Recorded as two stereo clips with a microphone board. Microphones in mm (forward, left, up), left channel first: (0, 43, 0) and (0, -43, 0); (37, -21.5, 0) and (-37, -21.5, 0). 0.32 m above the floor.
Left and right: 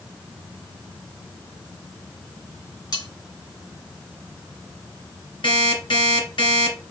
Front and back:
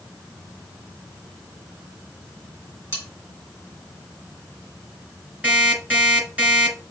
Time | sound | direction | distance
2.9 | cutlery clinking | 125° left | 2 m
5.4 | an alarm clock | 105° left | 2.5 m